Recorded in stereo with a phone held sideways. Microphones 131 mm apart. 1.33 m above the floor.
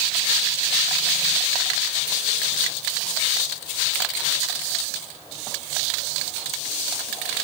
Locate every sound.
Only background noise.